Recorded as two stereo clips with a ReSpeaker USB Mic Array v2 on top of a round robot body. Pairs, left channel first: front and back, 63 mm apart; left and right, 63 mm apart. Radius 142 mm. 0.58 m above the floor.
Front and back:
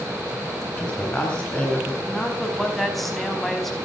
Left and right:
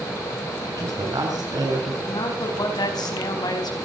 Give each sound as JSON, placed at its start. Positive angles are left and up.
{"t": 0.7, "sound": "a woman speaking", "azimuth_deg": -75, "distance_m": 8.0}
{"t": 2.1, "sound": "a woman speaking", "azimuth_deg": 85, "distance_m": 4.5}